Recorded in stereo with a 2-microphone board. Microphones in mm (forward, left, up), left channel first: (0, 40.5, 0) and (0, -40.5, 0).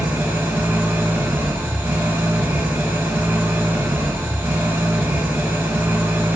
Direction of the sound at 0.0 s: 20° right (ahead or behind).